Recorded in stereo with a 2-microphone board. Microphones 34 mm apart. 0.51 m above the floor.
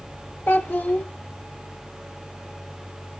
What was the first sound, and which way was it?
A child speaking, 55° left (ahead or behind).